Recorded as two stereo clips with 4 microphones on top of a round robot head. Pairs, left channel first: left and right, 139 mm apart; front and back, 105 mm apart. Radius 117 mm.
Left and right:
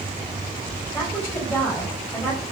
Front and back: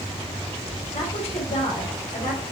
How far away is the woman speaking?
About 5 m.